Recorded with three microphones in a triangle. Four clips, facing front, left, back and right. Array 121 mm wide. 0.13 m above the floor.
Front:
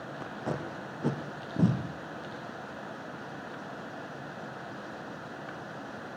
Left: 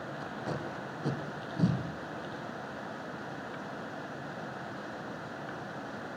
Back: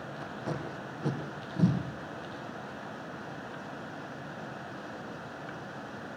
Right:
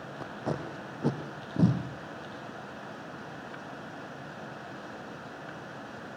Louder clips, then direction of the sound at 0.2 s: Right 4 dB, front 2 dB; 55° right.